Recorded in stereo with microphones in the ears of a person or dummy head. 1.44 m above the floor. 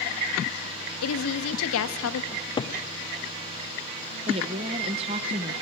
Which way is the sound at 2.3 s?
20° left (ahead or behind).